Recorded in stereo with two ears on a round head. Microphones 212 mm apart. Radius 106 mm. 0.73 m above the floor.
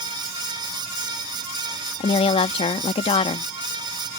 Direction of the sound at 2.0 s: 25° left (ahead or behind).